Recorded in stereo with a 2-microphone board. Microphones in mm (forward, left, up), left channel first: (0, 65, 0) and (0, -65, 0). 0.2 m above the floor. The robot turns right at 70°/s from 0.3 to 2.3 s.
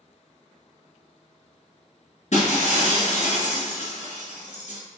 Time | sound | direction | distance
2.3 | breaking glass | 65° left (ahead or behind) | 1.7 m